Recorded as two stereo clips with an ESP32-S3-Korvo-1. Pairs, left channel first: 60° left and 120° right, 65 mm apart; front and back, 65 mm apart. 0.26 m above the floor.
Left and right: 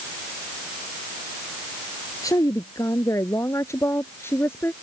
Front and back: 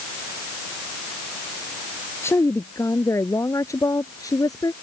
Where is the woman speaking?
40° left; by 4.7 s 10° left.